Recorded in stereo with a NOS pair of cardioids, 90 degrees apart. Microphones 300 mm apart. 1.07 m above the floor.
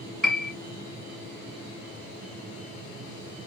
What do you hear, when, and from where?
0.2 s a piano: straight ahead, 2 m